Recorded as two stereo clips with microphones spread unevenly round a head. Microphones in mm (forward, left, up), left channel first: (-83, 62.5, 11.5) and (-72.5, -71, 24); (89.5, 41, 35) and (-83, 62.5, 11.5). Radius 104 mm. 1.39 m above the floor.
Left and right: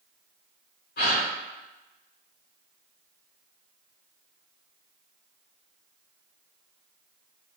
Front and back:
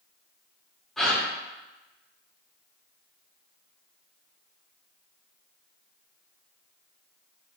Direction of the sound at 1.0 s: 80° left.